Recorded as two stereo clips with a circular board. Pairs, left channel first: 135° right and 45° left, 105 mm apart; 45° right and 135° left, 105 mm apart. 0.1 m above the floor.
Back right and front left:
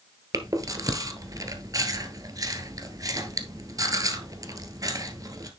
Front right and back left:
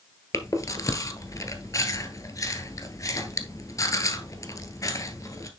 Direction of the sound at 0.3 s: 5° left.